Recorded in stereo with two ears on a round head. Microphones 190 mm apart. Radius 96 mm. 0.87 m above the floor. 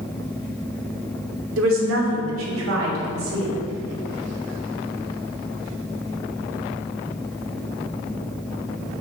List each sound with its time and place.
1.6 s a woman speaking: 75° right (ahead or behind), 2.5 m